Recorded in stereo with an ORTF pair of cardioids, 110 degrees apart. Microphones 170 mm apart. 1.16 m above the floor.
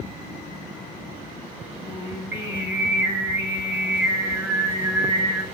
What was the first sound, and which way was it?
Singing, 15° right.